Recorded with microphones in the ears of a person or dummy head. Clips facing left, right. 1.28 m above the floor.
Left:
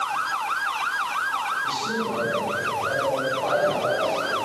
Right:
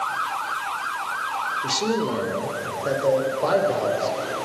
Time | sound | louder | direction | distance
1.6 | a man speaking | right 6 dB | 75° right (ahead or behind) | 3.5 m